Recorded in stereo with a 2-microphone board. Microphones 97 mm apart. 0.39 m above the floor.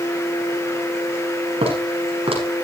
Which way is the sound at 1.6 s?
75° right (ahead or behind).